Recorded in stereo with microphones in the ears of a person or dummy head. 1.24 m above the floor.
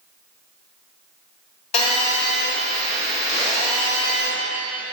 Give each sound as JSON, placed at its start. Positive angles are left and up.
{"t": 1.7, "sound": "a phone buzzing", "side_deg": 40, "distance_m": 2.5}